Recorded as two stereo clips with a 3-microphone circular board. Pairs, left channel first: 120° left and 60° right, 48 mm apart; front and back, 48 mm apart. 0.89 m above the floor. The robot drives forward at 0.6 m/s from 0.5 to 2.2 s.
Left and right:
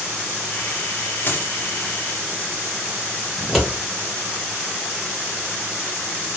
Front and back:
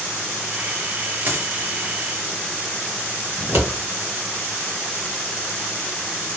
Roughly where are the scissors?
Behind right.